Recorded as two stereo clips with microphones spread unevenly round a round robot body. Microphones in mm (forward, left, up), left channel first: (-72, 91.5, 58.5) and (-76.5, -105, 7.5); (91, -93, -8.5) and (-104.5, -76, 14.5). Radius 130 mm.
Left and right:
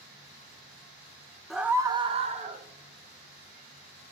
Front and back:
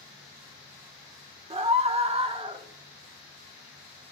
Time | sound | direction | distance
1.5 | a scream | 150° right | 1.0 m